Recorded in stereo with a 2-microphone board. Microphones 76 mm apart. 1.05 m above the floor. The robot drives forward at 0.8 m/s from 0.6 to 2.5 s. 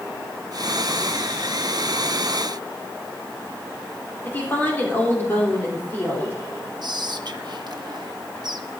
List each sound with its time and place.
4.2 s a woman speaking: 25° left (ahead or behind), 4 m
6.8 s whispering: 60° right (ahead or behind), 1.3 m